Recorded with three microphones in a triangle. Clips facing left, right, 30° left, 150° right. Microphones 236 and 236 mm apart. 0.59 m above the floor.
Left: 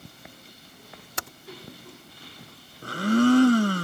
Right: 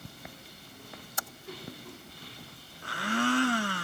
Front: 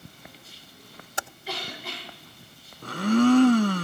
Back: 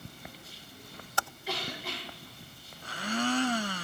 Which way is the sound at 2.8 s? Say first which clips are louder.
Left 11 dB, front 13 dB; 50° left.